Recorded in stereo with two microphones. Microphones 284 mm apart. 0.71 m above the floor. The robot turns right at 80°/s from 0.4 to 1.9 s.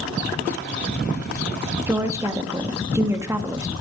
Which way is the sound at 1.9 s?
5° right (ahead or behind).